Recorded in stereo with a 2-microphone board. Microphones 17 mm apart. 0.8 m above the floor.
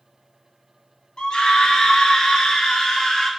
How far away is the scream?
About 1.6 m.